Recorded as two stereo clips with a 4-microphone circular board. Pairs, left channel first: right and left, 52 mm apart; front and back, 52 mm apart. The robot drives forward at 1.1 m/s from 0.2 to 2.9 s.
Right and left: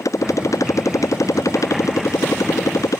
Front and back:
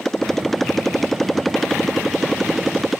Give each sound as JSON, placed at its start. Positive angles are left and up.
{"t": 0.0, "sound": "a motorcycle", "azimuth_deg": -85}